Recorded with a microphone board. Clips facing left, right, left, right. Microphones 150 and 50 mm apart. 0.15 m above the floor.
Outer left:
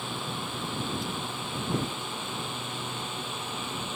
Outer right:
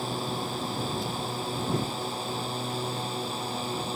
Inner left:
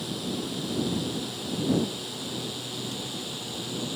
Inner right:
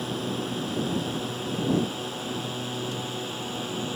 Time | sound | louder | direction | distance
0.0 | a drone | outer right 4 dB, inner right 2 dB | 35° right (ahead or behind) | ?